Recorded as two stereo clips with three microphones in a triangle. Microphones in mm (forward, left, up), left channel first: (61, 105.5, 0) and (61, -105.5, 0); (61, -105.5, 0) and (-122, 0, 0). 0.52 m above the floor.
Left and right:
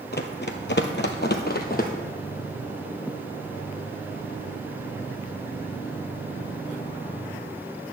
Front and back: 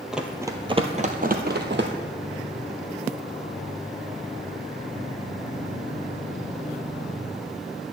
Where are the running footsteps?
65° left, 0.9 m; by 1.9 s 130° left, 1.2 m.